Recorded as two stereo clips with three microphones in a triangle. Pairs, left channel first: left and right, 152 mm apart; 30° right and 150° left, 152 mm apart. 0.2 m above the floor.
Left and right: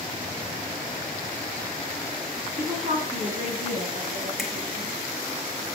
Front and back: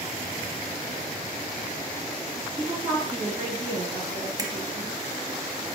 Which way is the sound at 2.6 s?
120° right.